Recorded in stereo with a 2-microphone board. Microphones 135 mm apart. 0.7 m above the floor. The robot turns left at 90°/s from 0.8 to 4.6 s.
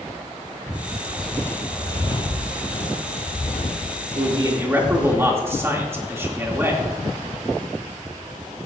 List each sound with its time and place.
1.2 s footsteps: centre (ahead or behind), 1.2 m; by 5.2 s 10° right (ahead or behind), 1.9 m
4.2 s a man speaking: 120° right, 1.9 m; by 6.9 s 160° right, 1.9 m